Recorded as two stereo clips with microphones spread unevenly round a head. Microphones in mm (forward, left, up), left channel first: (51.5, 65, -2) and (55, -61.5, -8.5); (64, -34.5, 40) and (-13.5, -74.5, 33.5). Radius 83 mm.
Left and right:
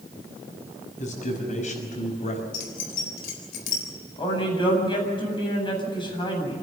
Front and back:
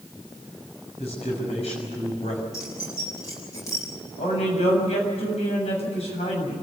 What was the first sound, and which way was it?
A man speaking, 65° left.